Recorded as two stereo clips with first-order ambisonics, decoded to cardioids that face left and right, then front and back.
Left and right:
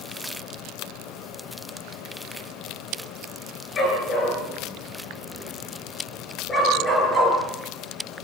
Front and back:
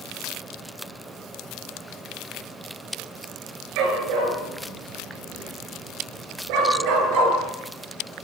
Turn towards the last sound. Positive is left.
turn(degrees=170)